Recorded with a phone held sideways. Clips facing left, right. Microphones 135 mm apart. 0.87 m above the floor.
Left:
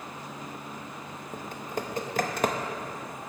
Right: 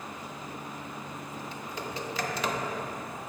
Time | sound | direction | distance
1.3 | typing on a keyboard | 50° left (ahead or behind) | 0.6 m